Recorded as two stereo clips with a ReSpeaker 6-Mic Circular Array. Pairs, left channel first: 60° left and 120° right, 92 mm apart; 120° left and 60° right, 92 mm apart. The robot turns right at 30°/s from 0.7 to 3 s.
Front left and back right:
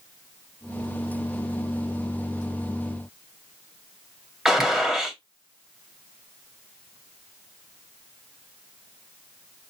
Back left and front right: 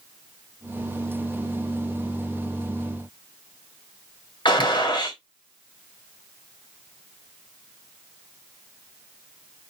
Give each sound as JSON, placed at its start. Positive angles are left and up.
{"t": 4.5, "sound": "a gunshot", "azimuth_deg": 155, "distance_m": 1.5}